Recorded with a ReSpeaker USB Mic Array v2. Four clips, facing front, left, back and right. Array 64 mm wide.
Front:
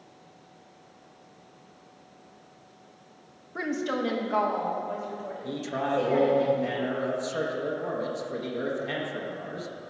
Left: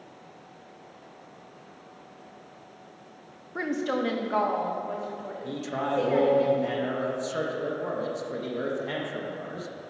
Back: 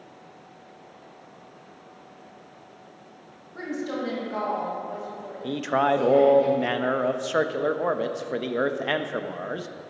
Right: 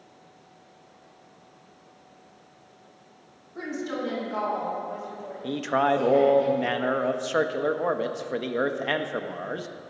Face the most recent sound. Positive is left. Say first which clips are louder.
# right 8 dB, back 8 dB
turn(degrees=-135)